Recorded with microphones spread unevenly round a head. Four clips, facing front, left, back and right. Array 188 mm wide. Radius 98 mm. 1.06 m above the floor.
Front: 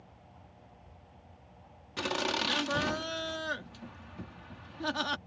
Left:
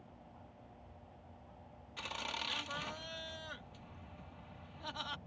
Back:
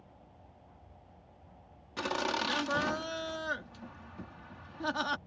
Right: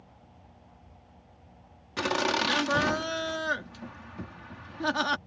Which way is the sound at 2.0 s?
85° right.